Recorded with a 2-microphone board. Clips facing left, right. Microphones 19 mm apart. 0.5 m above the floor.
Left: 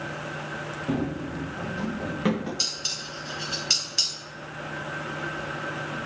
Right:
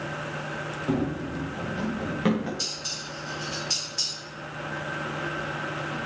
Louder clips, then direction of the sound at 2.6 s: Left 3 dB; 45° left (ahead or behind).